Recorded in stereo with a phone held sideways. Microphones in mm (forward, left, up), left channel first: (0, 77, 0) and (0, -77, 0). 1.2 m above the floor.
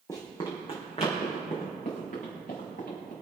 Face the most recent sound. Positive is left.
turn(degrees=65)  # may be behind; listen again after turning